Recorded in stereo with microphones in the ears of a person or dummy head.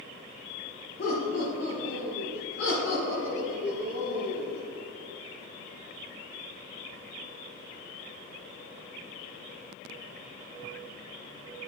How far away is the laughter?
About 2.5 m.